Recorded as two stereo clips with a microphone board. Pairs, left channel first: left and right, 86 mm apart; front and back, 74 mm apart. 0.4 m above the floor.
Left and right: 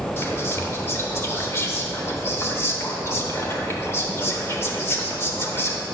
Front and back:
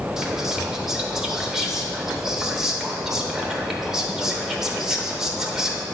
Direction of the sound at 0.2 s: 100° left.